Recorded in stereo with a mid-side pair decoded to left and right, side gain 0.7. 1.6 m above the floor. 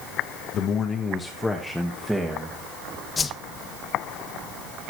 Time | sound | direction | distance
0.5 | a man speaking | 45° left | 1.5 m
3.2 | a whoosh | 20° left | 0.7 m